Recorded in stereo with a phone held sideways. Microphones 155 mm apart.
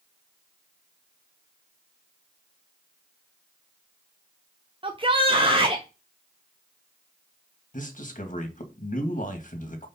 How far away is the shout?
About 0.7 m.